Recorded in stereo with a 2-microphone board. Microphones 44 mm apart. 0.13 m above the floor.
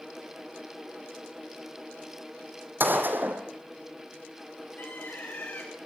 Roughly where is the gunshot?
Right.